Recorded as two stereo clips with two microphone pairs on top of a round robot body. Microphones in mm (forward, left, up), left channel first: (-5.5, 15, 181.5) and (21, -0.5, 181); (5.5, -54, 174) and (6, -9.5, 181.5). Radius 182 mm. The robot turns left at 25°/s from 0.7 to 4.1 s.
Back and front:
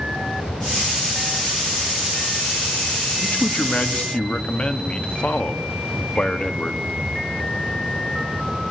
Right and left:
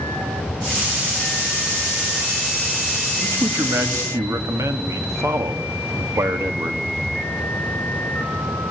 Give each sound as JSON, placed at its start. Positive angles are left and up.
{"t": 3.2, "sound": "a man speaking", "azimuth_deg": 115, "distance_m": 2.0}